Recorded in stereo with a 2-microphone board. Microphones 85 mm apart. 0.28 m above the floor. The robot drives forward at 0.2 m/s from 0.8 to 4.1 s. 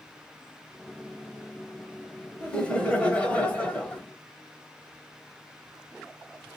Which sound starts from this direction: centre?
Laughter, at 2.4 s.